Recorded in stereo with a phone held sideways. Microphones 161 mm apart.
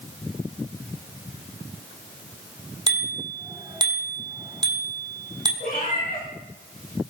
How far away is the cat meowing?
About 6.5 m.